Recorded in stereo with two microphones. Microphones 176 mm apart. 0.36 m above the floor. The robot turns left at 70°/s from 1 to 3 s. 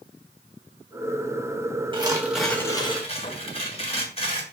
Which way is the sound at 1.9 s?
145° right.